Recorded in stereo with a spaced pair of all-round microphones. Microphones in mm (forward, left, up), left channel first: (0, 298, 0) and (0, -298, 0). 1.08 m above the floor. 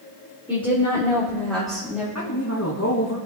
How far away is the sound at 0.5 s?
About 3 m.